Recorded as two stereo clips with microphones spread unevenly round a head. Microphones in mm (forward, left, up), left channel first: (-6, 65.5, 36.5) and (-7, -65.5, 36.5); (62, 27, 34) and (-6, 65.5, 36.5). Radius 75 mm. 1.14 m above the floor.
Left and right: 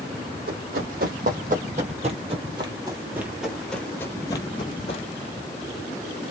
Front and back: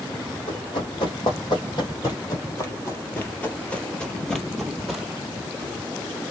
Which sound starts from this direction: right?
Running footsteps, at 0.5 s.